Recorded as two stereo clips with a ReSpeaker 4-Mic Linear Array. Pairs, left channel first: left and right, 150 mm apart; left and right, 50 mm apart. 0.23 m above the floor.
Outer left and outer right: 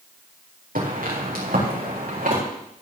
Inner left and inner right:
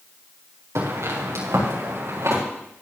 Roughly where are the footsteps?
Right.